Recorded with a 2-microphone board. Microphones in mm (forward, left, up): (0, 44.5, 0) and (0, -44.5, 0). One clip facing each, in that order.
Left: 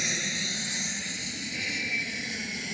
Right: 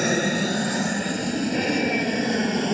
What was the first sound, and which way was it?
An aircraft, 50° right (ahead or behind).